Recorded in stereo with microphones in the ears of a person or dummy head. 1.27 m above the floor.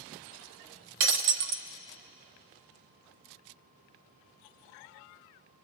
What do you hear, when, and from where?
1.0 s breaking glass: 50° right (ahead or behind), 0.9 m